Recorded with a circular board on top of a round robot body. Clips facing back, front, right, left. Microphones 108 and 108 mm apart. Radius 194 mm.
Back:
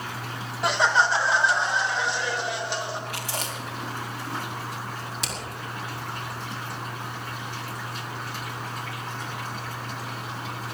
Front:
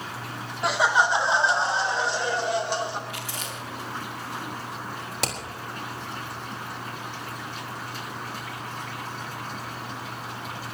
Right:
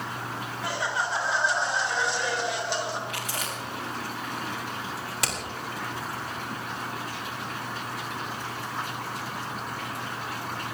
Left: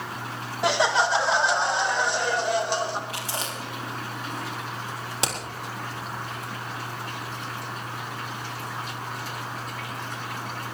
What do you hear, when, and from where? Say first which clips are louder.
0.6 s laughter: even, left 8 dB; 90° left, 1.3 m; by 3.0 s 45° left, 3.5 m
3.1 s chewing: back 3 dB, left 1 dB; 150° left, 3.5 m
5.2 s hammering: front 8 dB, left 4 dB; 25° left, 4 m